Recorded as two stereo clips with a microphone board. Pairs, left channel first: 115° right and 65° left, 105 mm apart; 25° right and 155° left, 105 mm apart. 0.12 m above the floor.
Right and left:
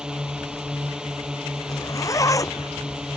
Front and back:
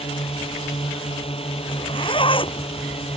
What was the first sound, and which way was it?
A drone, 15° right.